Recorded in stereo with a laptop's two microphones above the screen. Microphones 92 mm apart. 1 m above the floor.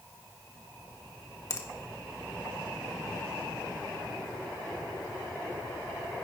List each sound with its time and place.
1.5 s a finger snap: 40° left (ahead or behind), 1.2 m